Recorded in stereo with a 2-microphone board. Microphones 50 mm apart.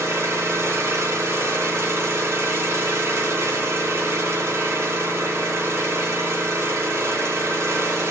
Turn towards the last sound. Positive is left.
turn(degrees=-70)  # may be behind; listen again after turning